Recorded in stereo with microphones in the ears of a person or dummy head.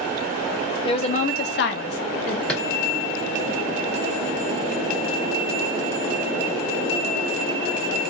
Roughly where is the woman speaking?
Left.